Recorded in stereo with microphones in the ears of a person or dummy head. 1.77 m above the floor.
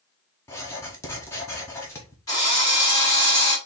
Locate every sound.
0.5 s writing: 10° left (ahead or behind), 0.8 m
2.3 s a drill: 20° left (ahead or behind), 2.0 m